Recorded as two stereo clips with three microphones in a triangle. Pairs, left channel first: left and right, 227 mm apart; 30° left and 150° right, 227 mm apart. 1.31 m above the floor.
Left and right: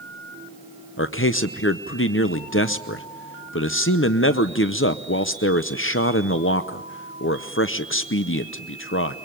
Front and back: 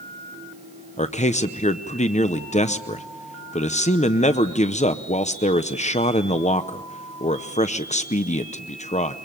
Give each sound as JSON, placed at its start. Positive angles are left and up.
{"t": 1.0, "sound": "a man speaking", "azimuth_deg": 85, "distance_m": 0.7}